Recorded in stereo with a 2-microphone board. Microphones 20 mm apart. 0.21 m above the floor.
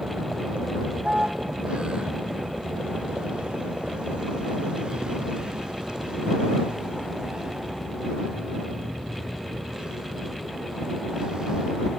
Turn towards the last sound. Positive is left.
turn(degrees=-40)  # may be behind; listen again after turning